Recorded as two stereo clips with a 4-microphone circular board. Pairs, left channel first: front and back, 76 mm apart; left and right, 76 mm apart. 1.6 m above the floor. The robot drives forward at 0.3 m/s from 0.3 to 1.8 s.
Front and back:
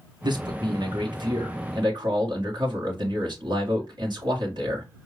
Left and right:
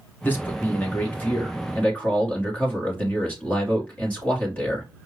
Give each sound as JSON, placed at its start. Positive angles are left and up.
{"t": 0.2, "sound": "a man speaking", "azimuth_deg": 155, "distance_m": 1.4}